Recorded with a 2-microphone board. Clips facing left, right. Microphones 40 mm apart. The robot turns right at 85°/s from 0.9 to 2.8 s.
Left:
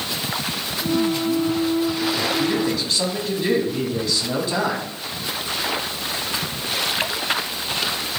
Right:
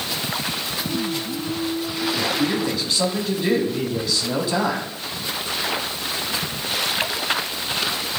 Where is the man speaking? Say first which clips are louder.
Left 1 dB; 20° right (ahead or behind), 1.6 m; by 4.8 s centre (ahead or behind), 1.6 m.